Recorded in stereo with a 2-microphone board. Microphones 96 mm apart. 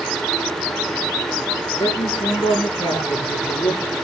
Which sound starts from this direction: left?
A man speaking, at 1.8 s.